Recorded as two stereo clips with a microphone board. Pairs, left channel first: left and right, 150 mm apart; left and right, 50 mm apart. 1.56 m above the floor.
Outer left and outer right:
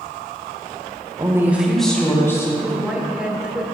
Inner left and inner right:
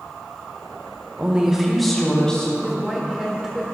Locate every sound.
1.2 s a woman speaking: 25° right (ahead or behind), 1.3 m; by 2.5 s 20° left (ahead or behind), 2 m
2.6 s a woman speaking: 10° right (ahead or behind), 1.7 m